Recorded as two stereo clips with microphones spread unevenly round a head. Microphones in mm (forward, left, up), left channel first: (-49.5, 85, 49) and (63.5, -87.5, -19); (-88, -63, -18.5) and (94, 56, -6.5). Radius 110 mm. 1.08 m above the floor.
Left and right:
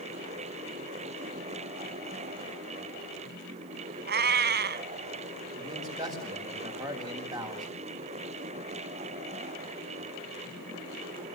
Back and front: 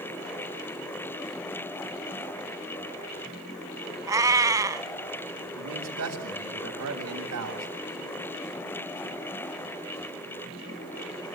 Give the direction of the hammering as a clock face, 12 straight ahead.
No hammering in this recording.